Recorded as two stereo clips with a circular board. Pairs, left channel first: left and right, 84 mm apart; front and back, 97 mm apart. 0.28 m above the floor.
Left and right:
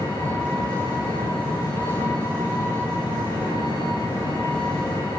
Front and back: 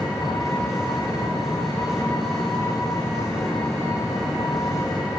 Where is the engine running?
90° left, 10 m.